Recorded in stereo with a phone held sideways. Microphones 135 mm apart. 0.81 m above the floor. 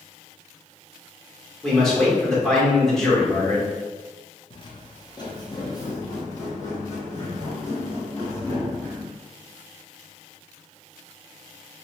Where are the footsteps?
40° left (ahead or behind), 1.1 m; by 9.1 s 15° left (ahead or behind), 3.5 m.